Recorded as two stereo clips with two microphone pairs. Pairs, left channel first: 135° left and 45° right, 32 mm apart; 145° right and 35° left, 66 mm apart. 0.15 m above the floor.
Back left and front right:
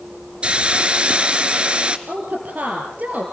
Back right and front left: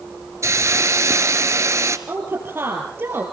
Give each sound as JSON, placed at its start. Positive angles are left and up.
{"t": 0.4, "sound": "a hiss", "azimuth_deg": 5, "distance_m": 1.3}
{"t": 2.1, "sound": "a woman speaking", "azimuth_deg": -20, "distance_m": 3.5}